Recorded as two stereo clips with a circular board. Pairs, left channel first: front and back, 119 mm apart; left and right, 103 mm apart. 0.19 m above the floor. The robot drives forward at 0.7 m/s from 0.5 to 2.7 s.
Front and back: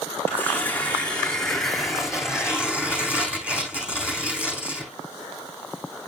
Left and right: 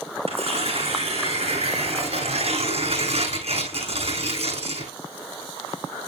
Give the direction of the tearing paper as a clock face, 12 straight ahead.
2 o'clock.